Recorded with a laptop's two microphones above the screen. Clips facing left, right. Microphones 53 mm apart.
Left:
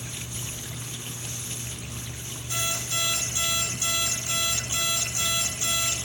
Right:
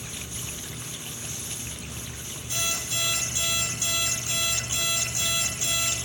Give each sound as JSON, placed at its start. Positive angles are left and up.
{"t": 2.5, "sound": "an alarm clock", "side_deg": 25, "distance_m": 4.0}